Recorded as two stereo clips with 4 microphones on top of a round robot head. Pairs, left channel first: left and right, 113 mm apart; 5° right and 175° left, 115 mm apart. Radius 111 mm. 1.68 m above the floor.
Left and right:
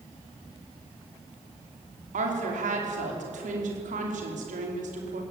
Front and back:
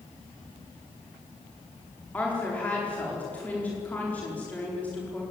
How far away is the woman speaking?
About 5 m.